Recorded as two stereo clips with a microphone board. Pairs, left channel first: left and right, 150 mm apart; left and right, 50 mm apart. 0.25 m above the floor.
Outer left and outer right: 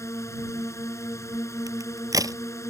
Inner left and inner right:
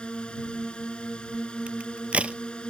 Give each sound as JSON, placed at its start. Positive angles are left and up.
{"t": 0.0, "sound": "a drone", "side_deg": 20}
{"t": 1.7, "sound": "a crack", "side_deg": -25}